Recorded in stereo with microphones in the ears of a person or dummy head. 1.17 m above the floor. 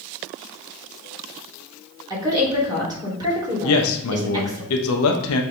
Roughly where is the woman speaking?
Centre.